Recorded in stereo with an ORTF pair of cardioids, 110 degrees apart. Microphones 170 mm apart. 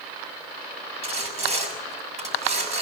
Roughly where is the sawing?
Ahead right.